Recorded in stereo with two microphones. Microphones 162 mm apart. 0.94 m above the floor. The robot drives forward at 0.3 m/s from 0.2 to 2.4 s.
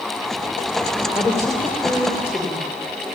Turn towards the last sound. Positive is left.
turn(degrees=15)  # may be behind; listen again after turning